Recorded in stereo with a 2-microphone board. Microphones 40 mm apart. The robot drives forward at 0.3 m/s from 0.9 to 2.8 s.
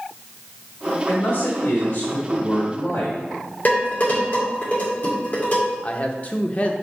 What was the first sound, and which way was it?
A man speaking, 60° left (ahead or behind).